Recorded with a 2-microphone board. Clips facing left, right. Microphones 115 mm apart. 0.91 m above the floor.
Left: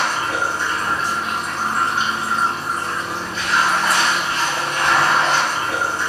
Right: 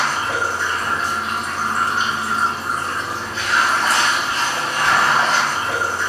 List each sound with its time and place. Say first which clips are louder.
0.0 s running water: even; 30° right (ahead or behind), 1.8 m